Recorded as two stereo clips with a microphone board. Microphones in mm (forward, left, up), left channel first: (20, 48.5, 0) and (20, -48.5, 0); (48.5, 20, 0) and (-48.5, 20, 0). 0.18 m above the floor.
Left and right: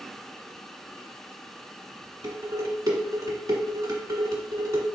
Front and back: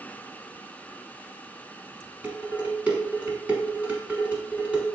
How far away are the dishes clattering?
About 1.3 m.